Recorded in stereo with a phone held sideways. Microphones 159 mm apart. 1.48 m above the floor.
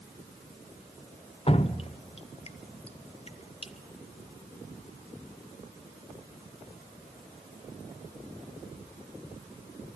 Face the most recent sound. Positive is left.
turn(degrees=35)  # may be behind; listen again after turning